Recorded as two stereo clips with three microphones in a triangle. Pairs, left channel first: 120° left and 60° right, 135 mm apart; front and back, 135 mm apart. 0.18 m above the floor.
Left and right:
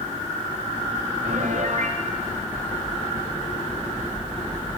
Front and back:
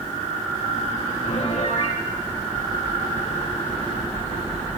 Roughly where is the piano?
Ahead right.